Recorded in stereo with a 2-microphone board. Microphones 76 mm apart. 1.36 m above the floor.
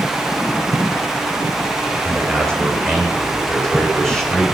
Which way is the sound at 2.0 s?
5° left (ahead or behind).